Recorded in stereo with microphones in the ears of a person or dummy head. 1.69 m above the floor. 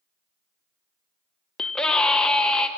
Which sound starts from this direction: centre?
A scream, at 1.6 s.